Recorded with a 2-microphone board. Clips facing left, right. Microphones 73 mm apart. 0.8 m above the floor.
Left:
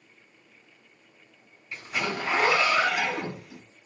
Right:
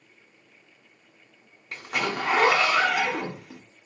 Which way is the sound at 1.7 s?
80° right.